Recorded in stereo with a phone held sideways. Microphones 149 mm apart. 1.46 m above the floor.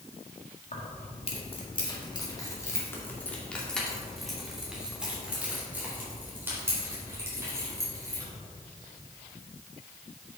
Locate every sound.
0.7 s keys jangling: 50° left (ahead or behind), 1.7 m; by 8.2 s 20° right (ahead or behind), 4 m